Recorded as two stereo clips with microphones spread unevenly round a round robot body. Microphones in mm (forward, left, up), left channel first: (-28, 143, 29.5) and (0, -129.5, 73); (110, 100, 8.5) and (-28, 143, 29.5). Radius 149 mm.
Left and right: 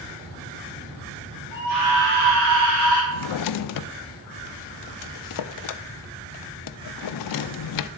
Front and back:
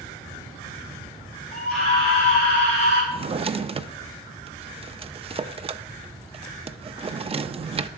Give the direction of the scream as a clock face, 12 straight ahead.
3 o'clock.